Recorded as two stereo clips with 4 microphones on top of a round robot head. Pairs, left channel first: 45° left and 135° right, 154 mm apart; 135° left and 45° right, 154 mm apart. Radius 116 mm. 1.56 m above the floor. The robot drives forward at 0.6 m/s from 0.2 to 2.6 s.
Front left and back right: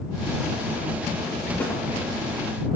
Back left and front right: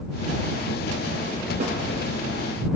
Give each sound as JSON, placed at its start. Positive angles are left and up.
{"t": 1.6, "sound": "a snare drum", "azimuth_deg": -30, "distance_m": 3.0}